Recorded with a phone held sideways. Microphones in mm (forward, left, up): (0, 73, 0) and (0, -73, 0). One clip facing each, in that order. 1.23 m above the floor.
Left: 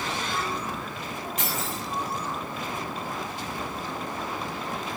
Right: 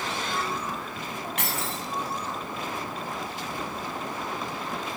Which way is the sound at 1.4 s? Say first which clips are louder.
Left 1 dB; 65° right (ahead or behind).